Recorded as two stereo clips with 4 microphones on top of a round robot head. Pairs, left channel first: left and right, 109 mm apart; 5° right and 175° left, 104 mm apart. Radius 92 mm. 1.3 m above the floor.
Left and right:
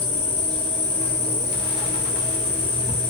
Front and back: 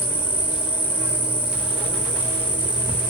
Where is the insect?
105° left, 0.7 m.